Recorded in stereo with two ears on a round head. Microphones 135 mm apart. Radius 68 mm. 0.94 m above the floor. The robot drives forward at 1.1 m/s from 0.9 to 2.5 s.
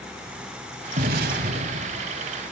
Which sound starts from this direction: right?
An explosion, at 1.0 s.